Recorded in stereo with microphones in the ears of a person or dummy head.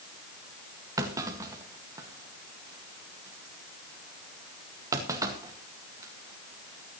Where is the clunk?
20° right (ahead or behind), 1.9 m.